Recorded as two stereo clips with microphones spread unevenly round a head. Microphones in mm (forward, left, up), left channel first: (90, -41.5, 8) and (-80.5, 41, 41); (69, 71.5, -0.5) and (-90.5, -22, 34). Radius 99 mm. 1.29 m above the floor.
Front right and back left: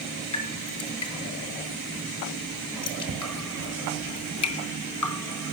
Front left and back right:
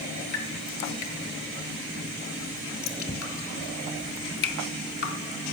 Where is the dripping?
15° right, 3 m.